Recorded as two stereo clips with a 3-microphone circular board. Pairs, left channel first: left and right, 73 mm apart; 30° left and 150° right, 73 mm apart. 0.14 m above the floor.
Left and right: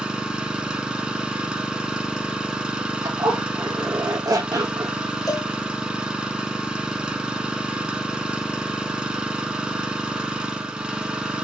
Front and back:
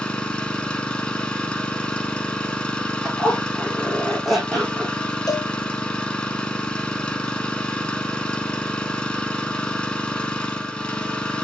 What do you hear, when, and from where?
0.0 s an engine running: 30° right, 1.1 m
3.0 s a zipper: 60° right, 2.5 m
5.3 s a cowbell: 60° left, 0.9 m